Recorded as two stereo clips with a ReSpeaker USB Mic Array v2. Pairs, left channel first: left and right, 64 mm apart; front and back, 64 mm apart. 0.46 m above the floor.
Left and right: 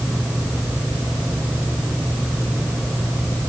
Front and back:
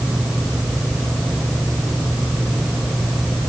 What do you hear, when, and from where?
Only background noise.